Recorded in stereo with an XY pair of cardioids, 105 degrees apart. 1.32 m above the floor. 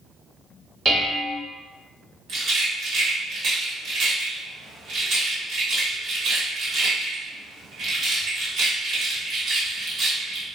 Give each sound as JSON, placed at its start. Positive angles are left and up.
{"t": 0.8, "sound": "dishes clattering", "azimuth_deg": -35, "distance_m": 1.2}
{"t": 2.3, "sound": "a rattle", "azimuth_deg": -65, "distance_m": 1.5}